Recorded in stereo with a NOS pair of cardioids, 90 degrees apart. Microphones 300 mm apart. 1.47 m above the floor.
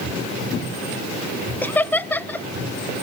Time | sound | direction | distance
1.6 | laughter | 5° left | 0.8 m